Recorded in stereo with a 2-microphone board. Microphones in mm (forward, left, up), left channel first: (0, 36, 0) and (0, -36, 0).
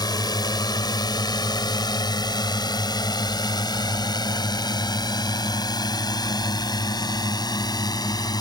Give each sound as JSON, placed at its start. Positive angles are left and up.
{"t": 0.0, "sound": "a drone", "side_deg": 70}